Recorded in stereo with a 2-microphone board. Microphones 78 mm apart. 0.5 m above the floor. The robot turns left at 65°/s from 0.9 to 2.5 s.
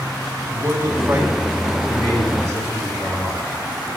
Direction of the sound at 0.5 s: 145° right.